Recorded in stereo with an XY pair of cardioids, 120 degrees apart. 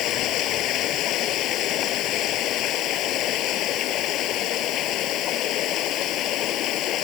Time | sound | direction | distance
0.0 | running water | 70° left | ?